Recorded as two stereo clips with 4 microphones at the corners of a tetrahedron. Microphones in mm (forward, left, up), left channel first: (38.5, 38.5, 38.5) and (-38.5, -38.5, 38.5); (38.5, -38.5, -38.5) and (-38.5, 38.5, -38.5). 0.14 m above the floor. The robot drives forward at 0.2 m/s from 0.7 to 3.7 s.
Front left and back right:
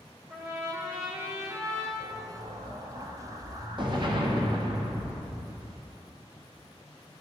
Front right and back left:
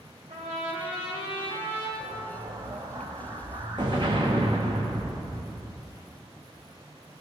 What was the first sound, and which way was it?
A trumpet, 155° left.